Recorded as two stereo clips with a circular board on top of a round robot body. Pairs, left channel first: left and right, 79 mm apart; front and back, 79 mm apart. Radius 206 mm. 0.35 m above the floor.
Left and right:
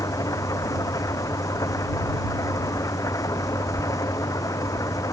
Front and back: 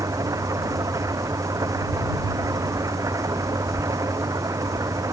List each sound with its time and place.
0.0 s an engine running: 135° left